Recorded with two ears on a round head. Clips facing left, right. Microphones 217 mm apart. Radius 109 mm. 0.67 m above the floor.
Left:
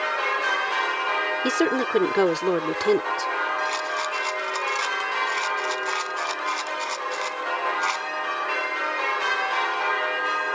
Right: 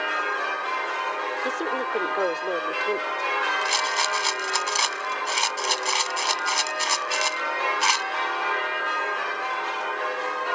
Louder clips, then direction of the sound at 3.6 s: Even; 60° right (ahead or behind).